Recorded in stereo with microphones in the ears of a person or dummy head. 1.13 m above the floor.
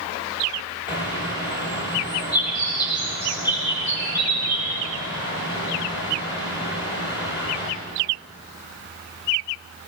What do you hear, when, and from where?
0.9 s a bird: 15° left (ahead or behind), 0.9 m